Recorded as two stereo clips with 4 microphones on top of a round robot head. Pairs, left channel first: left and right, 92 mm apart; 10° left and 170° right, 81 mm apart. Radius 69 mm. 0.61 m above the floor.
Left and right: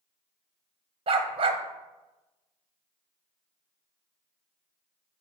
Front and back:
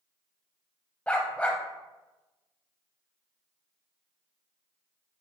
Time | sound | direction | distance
1.1 | a dog barking | 65° right | 1.0 m